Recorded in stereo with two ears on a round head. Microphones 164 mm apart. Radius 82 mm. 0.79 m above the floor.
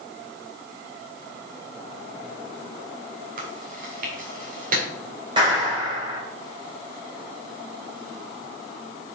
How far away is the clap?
About 2.5 m.